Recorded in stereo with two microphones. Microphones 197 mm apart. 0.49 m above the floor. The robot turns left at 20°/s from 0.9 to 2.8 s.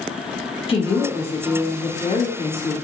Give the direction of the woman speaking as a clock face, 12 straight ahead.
8 o'clock.